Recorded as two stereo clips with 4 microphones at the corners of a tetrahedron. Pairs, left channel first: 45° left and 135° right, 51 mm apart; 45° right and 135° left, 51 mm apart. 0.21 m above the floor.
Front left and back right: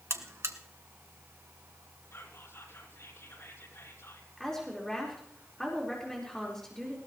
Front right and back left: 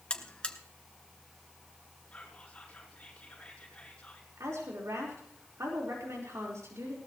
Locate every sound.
0.1 s a buzzer: 115° right, 1.2 m
2.1 s whispering: 25° left, 6 m
4.4 s a woman speaking: 125° left, 4.5 m